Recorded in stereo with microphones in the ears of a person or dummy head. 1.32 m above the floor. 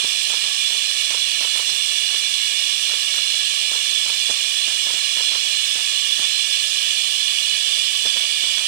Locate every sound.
0.0 s running water: 50° right (ahead or behind)